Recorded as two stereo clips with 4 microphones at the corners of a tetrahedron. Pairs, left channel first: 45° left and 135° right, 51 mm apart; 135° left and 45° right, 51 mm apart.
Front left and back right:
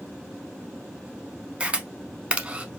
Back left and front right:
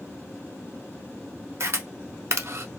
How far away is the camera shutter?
About 0.7 m.